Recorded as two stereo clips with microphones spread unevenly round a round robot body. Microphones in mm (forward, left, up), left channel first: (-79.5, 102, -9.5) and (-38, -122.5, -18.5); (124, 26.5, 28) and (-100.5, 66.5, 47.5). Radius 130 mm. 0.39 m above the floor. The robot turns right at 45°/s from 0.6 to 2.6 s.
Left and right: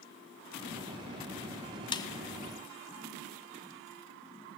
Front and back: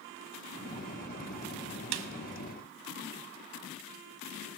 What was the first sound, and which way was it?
A snare drum, 170° left.